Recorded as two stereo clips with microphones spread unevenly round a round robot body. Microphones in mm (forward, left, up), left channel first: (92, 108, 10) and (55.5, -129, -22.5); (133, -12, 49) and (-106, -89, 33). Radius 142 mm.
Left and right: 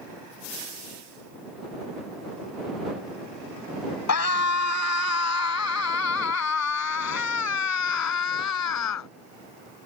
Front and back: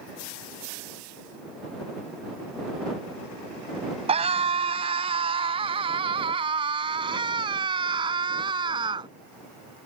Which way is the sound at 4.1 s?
125° left.